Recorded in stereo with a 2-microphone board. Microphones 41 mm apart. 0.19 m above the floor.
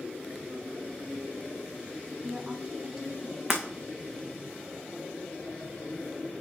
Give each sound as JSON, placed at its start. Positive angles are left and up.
{"t": 2.1, "sound": "a woman speaking", "side_deg": -20, "distance_m": 1.1}
{"t": 3.5, "sound": "breaking glass", "side_deg": -5, "distance_m": 2.0}